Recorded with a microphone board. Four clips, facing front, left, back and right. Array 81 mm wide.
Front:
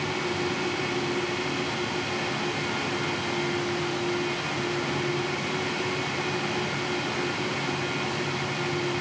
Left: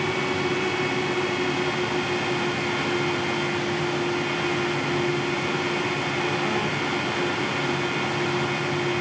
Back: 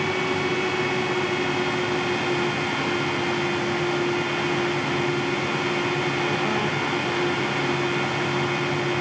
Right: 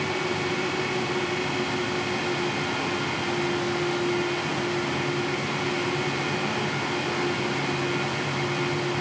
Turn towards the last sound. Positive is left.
No sound to turn to.